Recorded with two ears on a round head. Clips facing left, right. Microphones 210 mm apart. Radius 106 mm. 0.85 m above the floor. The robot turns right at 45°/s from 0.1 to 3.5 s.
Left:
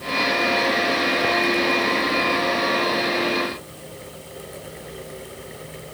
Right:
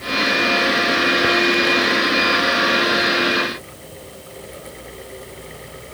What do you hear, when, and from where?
Only background noise.